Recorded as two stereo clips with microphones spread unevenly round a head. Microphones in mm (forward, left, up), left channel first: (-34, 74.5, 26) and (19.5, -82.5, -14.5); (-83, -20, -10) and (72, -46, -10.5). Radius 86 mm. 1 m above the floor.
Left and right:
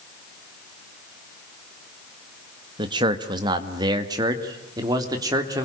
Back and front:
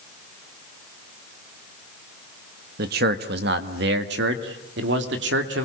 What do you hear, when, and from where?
2.8 s a man speaking: 20° right, 1.8 m; by 5.7 s 5° right, 3.5 m